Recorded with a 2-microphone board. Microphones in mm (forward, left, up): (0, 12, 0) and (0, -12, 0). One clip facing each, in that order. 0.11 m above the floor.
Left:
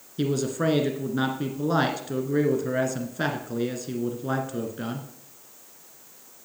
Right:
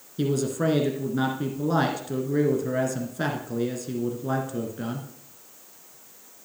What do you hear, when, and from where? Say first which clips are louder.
0.2 s a man speaking: even; 15° left (ahead or behind), 1.4 m